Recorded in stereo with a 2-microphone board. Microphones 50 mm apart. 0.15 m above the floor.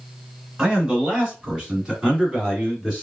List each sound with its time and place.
0.6 s a man speaking: 25° right (ahead or behind), 1.7 m; by 3.0 s 10° right (ahead or behind), 1.8 m